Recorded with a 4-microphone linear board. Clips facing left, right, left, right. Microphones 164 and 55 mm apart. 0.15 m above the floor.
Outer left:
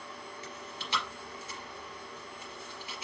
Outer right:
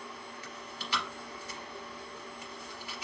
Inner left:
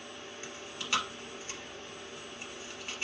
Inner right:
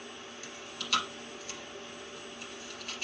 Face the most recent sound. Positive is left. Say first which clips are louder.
# even, inner left 1 dB
turn(degrees=25)  # may be behind; listen again after turning